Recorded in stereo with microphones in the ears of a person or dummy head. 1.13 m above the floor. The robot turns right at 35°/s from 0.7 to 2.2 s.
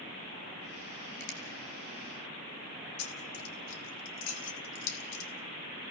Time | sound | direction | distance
1.2 | a finger snap | 65° left (ahead or behind) | 3.5 m
3.0 | keys jangling | 80° left | 2.5 m